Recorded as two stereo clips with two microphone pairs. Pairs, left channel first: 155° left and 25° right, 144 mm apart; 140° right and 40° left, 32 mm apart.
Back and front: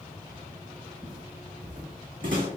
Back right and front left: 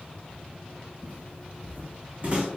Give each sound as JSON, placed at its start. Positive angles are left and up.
{"t": 1.0, "sound": "footsteps", "azimuth_deg": 35, "distance_m": 0.9}